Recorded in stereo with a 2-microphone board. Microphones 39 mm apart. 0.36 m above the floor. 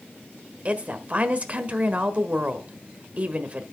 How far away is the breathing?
No breathing in this recording.